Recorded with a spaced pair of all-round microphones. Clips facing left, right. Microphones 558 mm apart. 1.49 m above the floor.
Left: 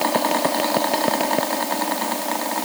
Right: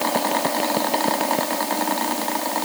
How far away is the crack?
I don't hear a crack.